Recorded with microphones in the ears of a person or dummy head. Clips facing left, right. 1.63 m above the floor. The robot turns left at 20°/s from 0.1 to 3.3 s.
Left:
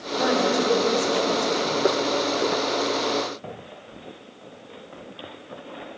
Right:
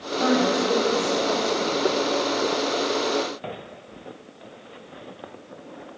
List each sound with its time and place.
0.2 s a woman speaking: 10° left (ahead or behind), 5 m; by 1.9 s 45° left (ahead or behind), 5 m